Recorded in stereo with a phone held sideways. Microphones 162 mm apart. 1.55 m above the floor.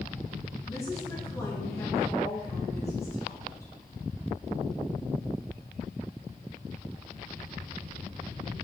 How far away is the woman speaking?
About 2 m.